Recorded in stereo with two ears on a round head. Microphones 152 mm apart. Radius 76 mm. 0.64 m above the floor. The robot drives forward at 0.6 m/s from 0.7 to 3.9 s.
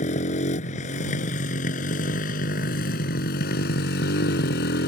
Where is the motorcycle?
45° left (ahead or behind); by 4.9 s 65° left (ahead or behind).